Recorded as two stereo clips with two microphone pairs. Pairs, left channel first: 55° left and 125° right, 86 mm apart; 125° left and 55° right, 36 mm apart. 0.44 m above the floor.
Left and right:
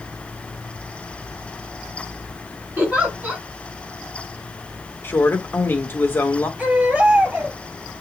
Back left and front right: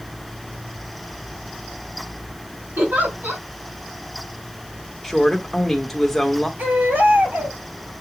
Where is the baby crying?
55° right, 4.5 m.